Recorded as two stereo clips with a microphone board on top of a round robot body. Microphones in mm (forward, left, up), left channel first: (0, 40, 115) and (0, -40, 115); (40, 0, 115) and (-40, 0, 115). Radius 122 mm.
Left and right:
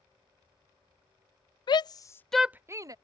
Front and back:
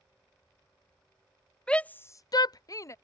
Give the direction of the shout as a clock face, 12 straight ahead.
9 o'clock.